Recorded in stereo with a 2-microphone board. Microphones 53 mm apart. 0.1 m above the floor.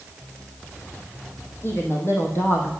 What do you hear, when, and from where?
1.6 s a woman speaking: 50° left (ahead or behind), 4 m; by 2.7 s 55° left (ahead or behind), 3.5 m